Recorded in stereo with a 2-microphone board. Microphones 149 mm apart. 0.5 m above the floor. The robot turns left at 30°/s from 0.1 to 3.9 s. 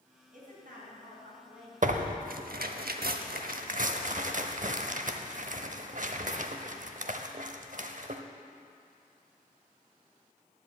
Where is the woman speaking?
95° right, 4 m; by 2.2 s 155° right, 4 m.